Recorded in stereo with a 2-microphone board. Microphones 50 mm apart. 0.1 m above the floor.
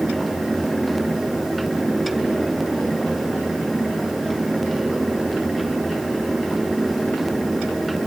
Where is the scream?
No scream in this recording.